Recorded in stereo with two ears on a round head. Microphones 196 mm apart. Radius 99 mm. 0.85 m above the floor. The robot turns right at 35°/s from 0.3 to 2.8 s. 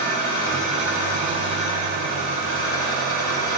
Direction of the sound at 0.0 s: 45° left.